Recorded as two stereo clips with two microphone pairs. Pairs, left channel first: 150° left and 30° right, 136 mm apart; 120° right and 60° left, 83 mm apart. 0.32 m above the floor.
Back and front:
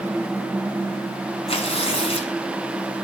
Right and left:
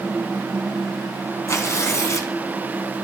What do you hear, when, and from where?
1.5 s tearing paper: 170° right, 1.9 m